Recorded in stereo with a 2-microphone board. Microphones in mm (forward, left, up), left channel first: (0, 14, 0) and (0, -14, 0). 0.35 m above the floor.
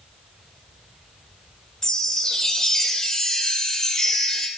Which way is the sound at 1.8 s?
20° left (ahead or behind).